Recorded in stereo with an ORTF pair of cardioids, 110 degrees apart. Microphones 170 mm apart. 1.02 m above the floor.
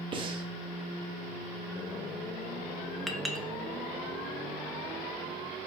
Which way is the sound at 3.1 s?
Straight ahead.